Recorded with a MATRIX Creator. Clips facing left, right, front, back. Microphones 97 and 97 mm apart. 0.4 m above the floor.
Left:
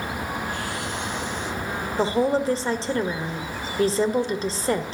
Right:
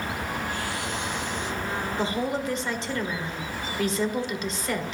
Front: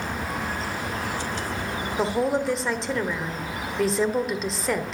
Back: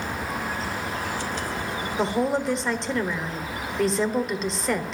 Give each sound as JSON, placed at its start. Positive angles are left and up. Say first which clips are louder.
{"t": 2.0, "sound": "a woman speaking", "louder": "left 8 dB, even", "azimuth_deg": 90, "distance_m": 1.4}